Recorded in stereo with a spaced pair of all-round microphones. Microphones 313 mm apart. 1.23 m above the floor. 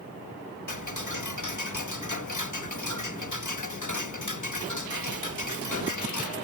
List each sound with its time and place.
0.7 s ticking: 70° left (ahead or behind)